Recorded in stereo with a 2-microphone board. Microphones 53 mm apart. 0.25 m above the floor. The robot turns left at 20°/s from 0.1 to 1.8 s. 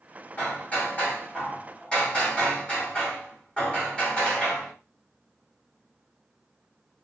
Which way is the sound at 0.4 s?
25° left (ahead or behind).